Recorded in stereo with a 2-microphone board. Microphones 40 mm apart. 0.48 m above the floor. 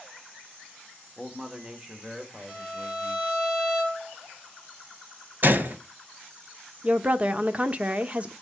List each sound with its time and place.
1.2 s a man speaking: 10° right (ahead or behind), 1.3 m; by 3.3 s 20° right (ahead or behind), 2.5 m
2.5 s a violin: 10° right (ahead or behind), 6 m
5.4 s a gunshot: 50° right (ahead or behind), 1.2 m
6.8 s a woman speaking: 30° right (ahead or behind), 0.8 m